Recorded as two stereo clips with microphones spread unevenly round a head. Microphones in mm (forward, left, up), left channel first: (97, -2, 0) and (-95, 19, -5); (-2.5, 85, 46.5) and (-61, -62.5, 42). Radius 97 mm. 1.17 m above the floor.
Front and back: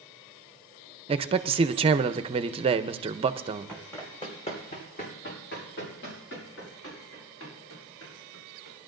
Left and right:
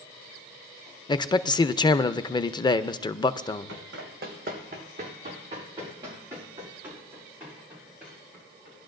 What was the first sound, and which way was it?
A man speaking, 125° left.